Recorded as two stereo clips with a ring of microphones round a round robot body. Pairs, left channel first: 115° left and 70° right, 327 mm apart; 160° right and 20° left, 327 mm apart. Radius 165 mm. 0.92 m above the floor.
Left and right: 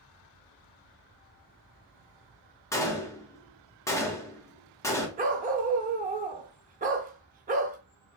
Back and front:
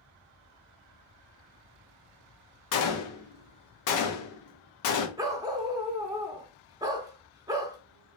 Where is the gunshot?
170° right, 0.8 m.